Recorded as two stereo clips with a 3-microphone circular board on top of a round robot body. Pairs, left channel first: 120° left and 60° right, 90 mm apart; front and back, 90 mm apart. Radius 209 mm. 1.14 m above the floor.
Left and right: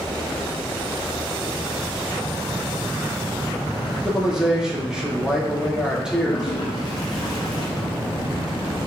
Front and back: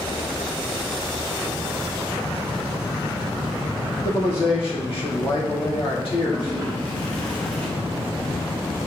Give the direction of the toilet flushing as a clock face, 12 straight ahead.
10 o'clock.